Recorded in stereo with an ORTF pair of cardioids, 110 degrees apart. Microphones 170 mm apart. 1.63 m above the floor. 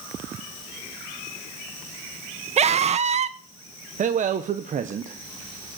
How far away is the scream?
About 1.2 m.